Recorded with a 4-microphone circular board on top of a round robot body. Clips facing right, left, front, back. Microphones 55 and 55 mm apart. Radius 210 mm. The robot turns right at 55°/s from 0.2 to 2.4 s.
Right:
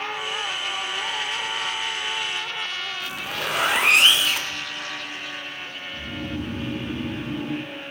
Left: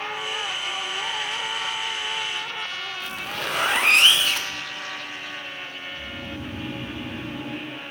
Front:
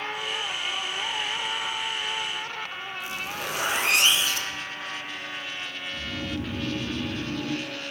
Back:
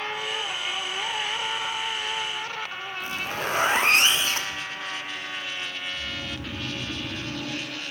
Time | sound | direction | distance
3.0 | a zipper | 175° right | 1.5 m
5.9 | snoring | 55° right | 1.6 m